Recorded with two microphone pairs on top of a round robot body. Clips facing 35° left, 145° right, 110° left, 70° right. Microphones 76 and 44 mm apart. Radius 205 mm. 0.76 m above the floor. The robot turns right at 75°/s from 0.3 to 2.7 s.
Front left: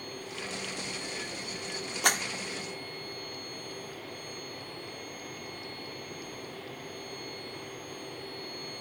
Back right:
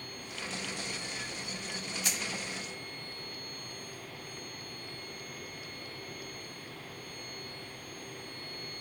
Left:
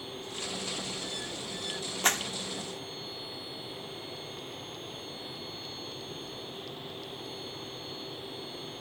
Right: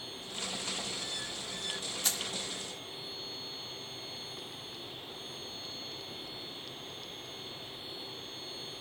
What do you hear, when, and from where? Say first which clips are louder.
2.0 s a clap: front left 13 dB, left 11 dB; 65° left; by 2.2 s 80° left